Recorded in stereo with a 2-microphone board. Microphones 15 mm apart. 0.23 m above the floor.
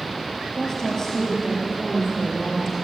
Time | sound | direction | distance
0.6 | a woman speaking | 35° left (ahead or behind) | 6 m